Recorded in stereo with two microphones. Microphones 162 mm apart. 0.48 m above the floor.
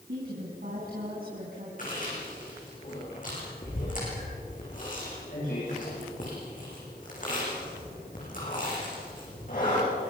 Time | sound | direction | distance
0.1 | a woman speaking | 65° right (ahead or behind) | 5 m
1.8 | chewing | 55° left (ahead or behind) | 10 m